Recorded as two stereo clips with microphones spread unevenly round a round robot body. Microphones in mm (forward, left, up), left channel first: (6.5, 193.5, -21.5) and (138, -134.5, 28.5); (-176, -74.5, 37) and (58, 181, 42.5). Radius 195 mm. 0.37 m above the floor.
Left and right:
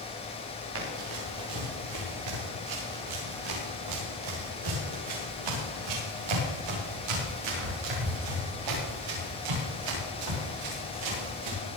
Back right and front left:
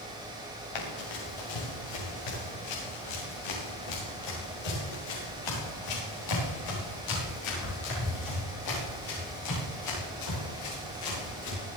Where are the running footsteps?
125° right, 4.5 m; by 11.7 s 80° right, 10.5 m.